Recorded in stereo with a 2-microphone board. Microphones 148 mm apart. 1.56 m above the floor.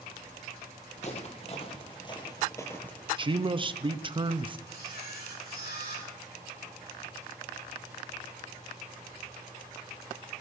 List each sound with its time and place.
1.0 s footsteps: 45° left (ahead or behind), 2 m; by 3.1 s 10° left (ahead or behind), 1.6 m
3.2 s a man speaking: 30° right (ahead or behind), 0.7 m
4.7 s a camera shutter: 80° left, 3 m